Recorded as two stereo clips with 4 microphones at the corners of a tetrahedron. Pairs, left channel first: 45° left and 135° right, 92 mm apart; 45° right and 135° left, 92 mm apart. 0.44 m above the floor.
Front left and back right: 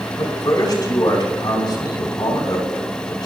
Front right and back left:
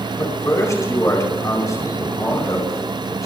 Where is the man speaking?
5° left, 4 m.